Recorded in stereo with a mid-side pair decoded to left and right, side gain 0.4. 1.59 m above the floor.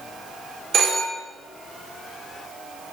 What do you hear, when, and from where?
0.7 s a phone ringing: 70° right, 4 m